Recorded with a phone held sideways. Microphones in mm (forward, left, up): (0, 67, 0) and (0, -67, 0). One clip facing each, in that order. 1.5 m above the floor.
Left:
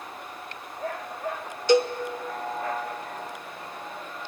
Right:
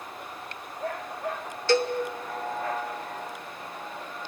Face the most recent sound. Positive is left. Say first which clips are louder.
# left 3 dB
turn(degrees=15)  # may be behind; listen again after turning